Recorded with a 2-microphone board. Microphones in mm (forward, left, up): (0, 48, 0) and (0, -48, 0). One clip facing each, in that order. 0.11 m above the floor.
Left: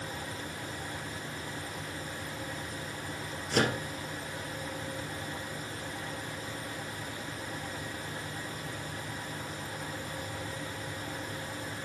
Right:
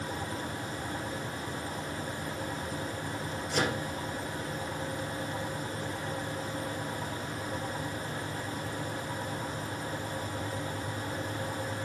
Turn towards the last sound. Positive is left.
turn(degrees=55)  # may be behind; listen again after turning